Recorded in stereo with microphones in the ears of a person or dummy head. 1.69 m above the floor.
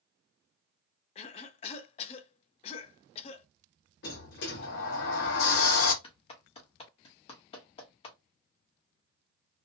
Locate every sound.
1.1 s a cough: 40° left (ahead or behind), 0.5 m
4.0 s a sliding door: 65° left (ahead or behind), 0.9 m
6.0 s a clap: 40° left (ahead or behind), 0.9 m